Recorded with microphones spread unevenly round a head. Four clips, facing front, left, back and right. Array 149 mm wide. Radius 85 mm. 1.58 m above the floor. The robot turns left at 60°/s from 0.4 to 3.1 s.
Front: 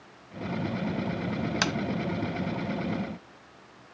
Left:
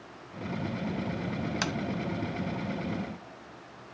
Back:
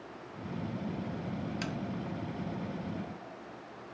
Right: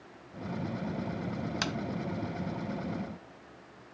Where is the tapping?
15° left, 0.6 m; by 1.8 s 10° left, 0.6 m.